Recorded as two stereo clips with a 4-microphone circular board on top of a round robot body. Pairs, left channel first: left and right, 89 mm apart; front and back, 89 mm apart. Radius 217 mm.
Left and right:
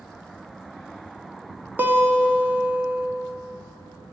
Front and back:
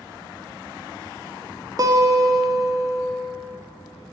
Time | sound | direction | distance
1.8 | a guitar | 150° right | 1.3 m